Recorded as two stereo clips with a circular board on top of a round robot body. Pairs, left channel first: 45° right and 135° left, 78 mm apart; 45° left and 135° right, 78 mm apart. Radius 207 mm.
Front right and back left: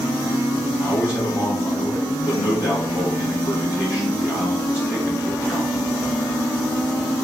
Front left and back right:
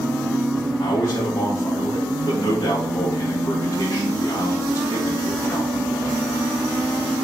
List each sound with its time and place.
0.8 s a man speaking: straight ahead, 3.5 m